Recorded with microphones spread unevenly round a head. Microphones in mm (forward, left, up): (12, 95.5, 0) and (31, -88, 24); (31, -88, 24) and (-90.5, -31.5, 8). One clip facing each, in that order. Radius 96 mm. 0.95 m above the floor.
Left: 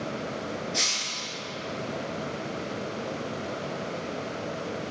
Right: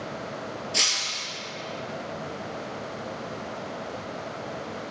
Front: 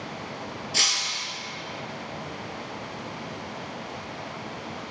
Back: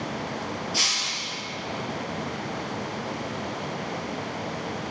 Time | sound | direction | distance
0.7 | breaking glass | 50° right | 2.5 m